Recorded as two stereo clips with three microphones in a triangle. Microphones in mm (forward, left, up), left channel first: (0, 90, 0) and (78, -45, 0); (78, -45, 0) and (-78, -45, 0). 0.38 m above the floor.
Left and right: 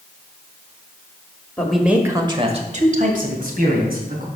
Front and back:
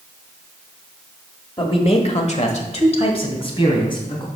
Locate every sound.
1.6 s a man speaking: 40° left, 1.3 m; by 4.3 s 60° right, 3 m